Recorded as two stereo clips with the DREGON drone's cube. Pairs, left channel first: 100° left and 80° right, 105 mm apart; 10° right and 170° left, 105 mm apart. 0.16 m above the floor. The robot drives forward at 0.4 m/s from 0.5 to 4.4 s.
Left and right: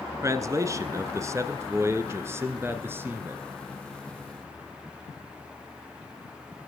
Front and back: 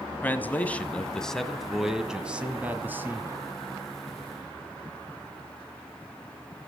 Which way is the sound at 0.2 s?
70° right.